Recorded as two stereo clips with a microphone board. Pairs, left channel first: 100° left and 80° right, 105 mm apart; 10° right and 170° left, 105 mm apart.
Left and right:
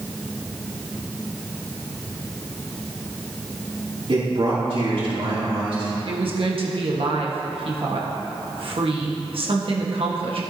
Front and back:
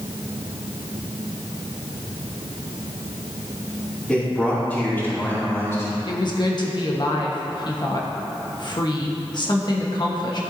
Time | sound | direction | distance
4.1 | a man speaking | 90° right | 3 m
6.1 | a woman speaking | 55° right | 1.5 m